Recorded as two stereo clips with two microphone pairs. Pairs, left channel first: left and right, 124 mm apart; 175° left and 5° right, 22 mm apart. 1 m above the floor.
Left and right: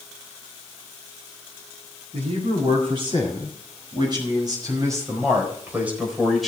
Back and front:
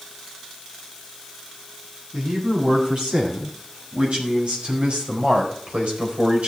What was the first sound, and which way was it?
A man speaking, 50° right.